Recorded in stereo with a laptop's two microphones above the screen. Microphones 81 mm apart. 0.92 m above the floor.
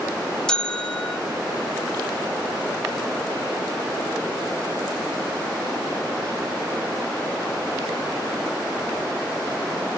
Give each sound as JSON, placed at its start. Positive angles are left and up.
{"t": 0.5, "sound": "a bell", "side_deg": 10, "distance_m": 0.5}